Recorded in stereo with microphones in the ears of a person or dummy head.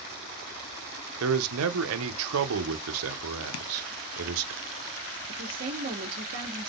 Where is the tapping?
75° left (ahead or behind), 0.5 m.